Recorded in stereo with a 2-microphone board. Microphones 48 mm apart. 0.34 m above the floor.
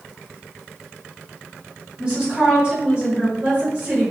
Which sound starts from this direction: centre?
A woman speaking, at 2.0 s.